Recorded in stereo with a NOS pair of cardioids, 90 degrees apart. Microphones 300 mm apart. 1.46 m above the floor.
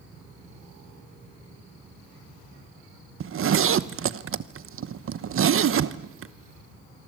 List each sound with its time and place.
3.2 s a zipper: 45° right, 1.1 m